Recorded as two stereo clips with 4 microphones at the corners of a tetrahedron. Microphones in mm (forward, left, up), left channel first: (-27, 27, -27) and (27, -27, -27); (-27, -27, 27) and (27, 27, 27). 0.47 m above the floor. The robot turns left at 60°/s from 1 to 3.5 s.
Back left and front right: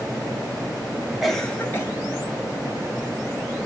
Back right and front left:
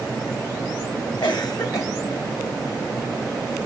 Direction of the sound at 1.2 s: 130° right.